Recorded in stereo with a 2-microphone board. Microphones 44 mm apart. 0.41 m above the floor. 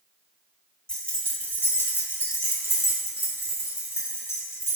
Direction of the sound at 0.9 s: 15° left (ahead or behind).